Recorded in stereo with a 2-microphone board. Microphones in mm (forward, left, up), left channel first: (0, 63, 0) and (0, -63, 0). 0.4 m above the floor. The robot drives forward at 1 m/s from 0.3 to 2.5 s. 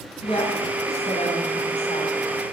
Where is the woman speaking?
50° left (ahead or behind), 4 m; by 2.3 s 65° left (ahead or behind), 3.5 m.